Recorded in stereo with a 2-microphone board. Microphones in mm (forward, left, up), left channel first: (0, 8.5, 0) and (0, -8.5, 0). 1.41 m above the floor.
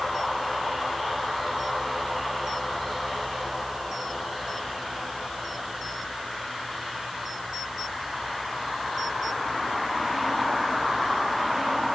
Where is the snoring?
I don't hear snoring.